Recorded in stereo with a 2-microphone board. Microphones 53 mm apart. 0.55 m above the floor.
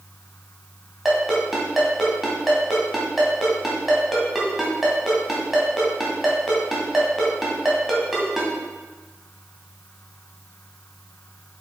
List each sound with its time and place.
1.1 s a ringtone: 5° right (ahead or behind), 2.5 m